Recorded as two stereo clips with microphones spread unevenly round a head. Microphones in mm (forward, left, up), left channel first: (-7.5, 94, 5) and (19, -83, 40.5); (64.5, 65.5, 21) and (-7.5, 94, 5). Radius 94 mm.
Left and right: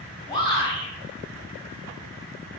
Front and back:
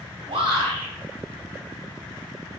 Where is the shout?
165° left, 4 m.